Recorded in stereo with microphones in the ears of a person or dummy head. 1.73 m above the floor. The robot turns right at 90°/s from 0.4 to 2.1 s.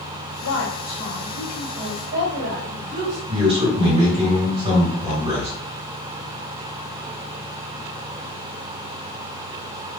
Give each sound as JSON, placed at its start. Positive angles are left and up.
{"t": 0.4, "sound": "a woman speaking", "azimuth_deg": 90, "distance_m": 1.3}
{"t": 3.3, "sound": "a man speaking", "side_deg": -40, "distance_m": 1.7}